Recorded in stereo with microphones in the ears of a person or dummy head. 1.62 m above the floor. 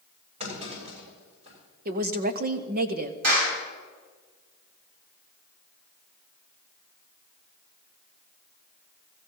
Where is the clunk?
35° right (ahead or behind), 8 m.